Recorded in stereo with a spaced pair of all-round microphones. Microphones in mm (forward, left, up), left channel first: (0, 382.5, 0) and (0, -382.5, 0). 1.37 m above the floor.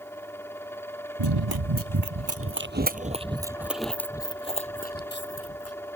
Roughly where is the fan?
Centre.